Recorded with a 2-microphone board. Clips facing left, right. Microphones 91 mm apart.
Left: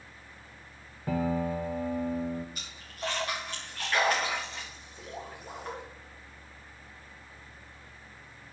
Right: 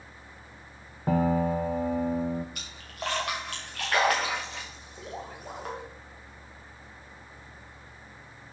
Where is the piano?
45° right (ahead or behind), 0.6 m.